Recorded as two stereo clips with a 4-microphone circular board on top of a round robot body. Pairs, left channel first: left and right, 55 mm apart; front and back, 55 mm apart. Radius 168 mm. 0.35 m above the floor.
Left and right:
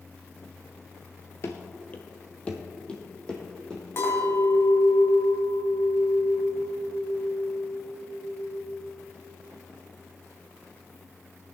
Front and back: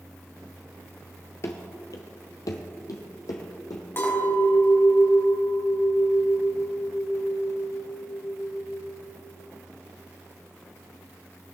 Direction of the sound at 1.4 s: 45° left.